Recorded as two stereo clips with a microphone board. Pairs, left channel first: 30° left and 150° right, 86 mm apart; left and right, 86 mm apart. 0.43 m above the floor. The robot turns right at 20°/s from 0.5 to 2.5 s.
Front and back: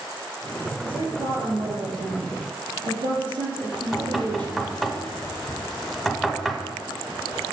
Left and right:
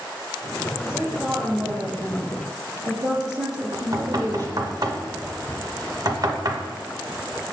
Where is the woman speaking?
170° right, 3.5 m; by 4.7 s 135° right, 3.5 m.